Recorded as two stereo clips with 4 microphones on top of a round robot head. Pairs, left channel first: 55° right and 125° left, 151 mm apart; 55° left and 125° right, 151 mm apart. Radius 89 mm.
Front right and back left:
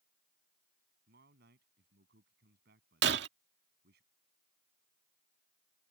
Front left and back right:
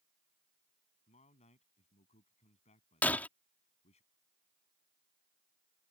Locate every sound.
1.1 s a man speaking: 100° left
3.0 s breaking glass: 135° left